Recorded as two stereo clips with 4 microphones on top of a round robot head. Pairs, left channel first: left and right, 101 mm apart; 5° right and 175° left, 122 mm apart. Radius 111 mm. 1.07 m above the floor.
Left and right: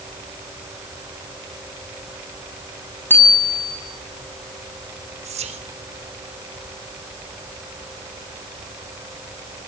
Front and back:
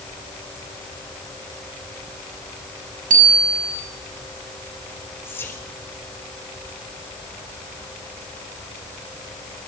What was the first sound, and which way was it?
A bicycle bell, 160° left.